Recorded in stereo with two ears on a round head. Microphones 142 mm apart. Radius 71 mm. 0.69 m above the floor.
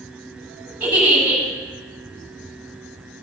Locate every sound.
0.8 s a giggle: 10° right (ahead or behind), 5.5 m